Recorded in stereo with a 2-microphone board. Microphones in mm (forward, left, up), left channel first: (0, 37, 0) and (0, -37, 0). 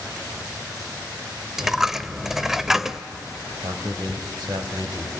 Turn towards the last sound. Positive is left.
turn(degrees=-70)  # may be behind; listen again after turning